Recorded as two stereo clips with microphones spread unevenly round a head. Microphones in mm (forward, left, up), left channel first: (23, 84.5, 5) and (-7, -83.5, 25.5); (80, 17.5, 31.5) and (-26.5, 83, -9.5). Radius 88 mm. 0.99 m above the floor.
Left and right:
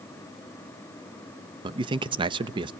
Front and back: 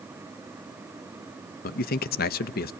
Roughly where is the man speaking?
Ahead right.